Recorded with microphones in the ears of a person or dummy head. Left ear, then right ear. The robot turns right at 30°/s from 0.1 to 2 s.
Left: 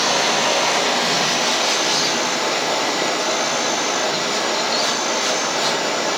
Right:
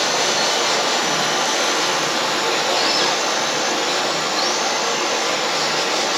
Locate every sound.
0.0 s running water: straight behind, 9.5 m; by 6.2 s 125° right, 9.5 m